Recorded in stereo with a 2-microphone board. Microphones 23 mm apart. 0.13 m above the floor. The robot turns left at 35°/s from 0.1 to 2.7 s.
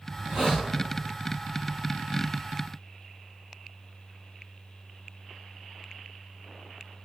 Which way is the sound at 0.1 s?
30° right (ahead or behind).